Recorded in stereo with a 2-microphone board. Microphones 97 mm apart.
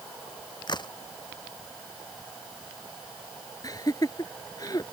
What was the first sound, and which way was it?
A crack, 50° left (ahead or behind).